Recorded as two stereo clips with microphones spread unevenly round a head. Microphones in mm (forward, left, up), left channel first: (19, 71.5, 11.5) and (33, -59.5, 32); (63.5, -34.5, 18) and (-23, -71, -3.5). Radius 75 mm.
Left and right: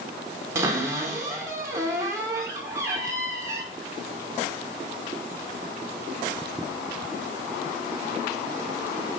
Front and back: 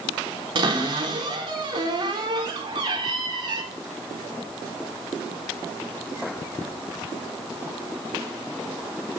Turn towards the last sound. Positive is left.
turn(degrees=-160)